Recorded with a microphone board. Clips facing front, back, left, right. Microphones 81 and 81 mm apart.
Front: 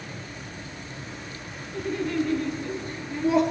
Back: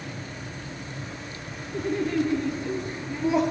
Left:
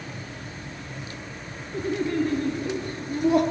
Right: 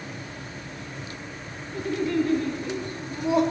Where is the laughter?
135° left, 1.8 m; by 3.4 s 95° left, 2 m.